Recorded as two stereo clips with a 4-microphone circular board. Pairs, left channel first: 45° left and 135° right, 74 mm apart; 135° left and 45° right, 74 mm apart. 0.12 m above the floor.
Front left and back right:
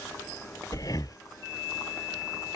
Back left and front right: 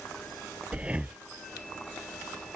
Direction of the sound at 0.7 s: 25° left.